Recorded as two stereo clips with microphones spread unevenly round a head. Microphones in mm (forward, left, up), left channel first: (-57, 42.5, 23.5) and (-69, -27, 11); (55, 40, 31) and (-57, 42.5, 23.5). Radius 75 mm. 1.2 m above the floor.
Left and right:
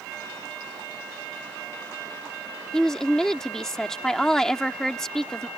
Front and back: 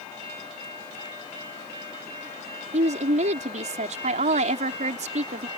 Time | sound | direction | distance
2.7 | a woman speaking | 160° left | ?